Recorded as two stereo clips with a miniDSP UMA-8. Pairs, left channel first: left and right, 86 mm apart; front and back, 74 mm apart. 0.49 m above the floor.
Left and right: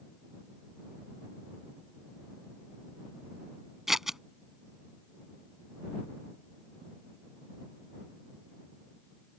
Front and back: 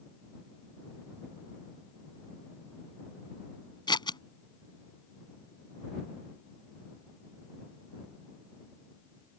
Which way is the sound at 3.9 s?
5° right.